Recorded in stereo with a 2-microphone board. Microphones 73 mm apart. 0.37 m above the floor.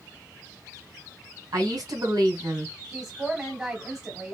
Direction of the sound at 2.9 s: 20° right (ahead or behind).